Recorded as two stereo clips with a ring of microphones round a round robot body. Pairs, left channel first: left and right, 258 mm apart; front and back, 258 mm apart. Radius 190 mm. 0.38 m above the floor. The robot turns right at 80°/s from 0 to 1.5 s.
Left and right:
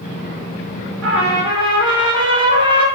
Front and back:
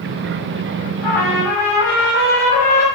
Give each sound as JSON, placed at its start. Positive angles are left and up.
{"t": 1.0, "sound": "a trumpet", "azimuth_deg": -55, "distance_m": 0.9}